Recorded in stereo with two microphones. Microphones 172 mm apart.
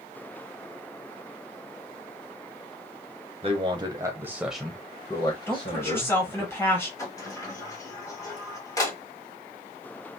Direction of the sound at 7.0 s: 20° left (ahead or behind).